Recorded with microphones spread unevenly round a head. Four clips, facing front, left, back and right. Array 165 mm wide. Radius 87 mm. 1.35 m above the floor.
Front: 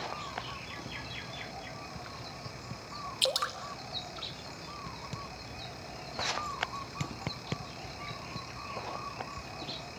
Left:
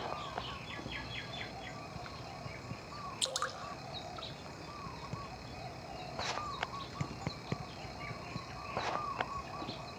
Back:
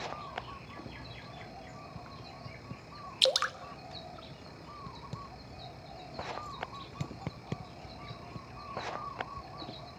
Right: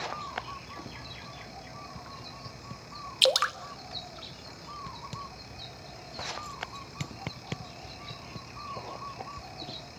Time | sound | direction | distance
3.2 | dripping | 105° right | 0.8 m